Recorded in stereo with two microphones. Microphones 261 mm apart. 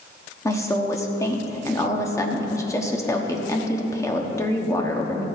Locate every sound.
0.5 s a woman speaking: 10° left (ahead or behind), 1.1 m